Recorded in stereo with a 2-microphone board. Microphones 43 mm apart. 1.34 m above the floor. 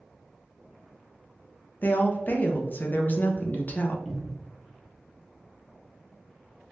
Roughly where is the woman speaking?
Left.